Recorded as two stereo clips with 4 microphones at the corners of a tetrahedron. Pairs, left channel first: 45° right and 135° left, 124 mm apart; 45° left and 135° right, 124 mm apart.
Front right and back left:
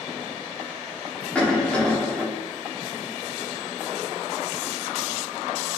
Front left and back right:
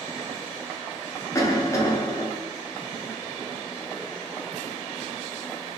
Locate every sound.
1.4 s a cough: 25° left, 0.9 m